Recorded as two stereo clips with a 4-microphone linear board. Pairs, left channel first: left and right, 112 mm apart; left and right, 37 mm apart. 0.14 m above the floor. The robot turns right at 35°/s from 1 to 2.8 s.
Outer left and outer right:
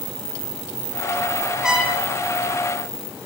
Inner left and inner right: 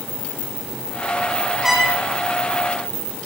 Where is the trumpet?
5° right (ahead or behind), 3 m; by 2.0 s 15° right (ahead or behind), 3 m.